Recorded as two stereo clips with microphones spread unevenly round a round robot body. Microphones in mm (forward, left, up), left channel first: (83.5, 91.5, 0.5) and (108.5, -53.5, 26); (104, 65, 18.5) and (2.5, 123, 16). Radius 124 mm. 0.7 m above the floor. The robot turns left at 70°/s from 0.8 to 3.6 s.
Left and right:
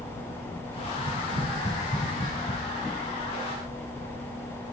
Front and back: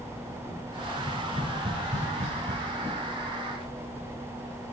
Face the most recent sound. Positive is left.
turn(degrees=75)